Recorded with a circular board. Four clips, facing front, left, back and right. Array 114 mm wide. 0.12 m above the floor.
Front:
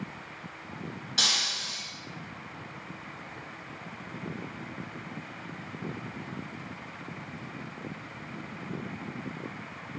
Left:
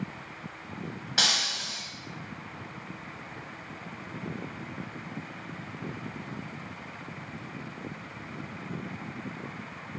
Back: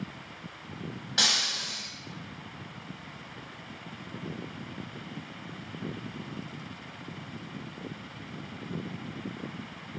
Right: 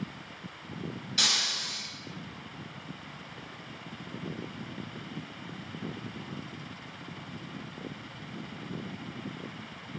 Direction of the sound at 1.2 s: 100° left.